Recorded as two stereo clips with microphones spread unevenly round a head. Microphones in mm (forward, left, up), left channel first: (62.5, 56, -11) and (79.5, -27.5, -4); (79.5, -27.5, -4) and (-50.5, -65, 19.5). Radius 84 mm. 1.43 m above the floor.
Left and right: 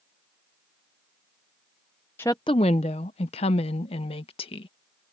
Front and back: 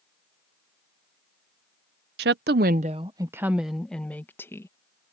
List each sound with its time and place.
2.2 s a woman speaking: straight behind; by 4.7 s 90° left